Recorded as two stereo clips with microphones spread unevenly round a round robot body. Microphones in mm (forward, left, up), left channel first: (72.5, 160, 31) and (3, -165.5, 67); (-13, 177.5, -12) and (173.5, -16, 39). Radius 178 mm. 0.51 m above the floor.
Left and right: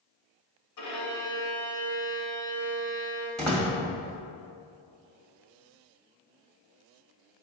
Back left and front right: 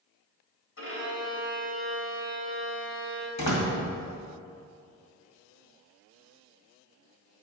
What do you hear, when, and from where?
0.8 s a violin: 105° left, 3 m
3.4 s a door slam: 165° left, 1.8 m